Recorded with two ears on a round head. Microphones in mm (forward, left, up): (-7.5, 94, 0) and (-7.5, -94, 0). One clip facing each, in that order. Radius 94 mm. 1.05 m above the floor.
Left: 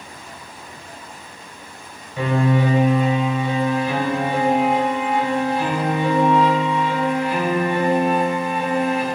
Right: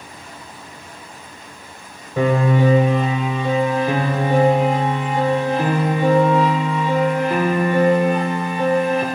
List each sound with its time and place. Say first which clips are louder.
2.2 s a piano: right 2 dB; 40° right (ahead or behind), 3.5 m